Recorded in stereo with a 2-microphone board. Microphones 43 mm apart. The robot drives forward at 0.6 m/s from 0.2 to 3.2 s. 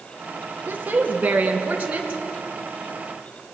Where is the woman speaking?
40° right (ahead or behind), 2.5 m; by 2.2 s 30° right (ahead or behind), 3.5 m.